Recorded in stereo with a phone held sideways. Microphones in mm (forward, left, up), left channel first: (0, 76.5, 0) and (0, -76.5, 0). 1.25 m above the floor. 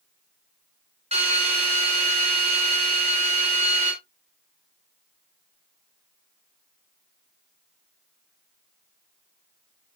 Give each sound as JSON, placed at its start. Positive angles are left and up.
{"t": 1.1, "sound": "a drill", "side_deg": -40, "distance_m": 6.0}